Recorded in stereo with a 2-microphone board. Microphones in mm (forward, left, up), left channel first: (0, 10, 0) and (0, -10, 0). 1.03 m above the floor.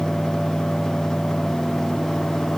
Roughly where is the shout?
I don't hear a shout.